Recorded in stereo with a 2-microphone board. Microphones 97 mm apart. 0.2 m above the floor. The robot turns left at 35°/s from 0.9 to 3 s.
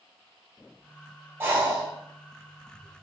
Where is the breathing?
25° right (ahead or behind), 1.9 m; by 3.0 s 75° right (ahead or behind), 1.9 m.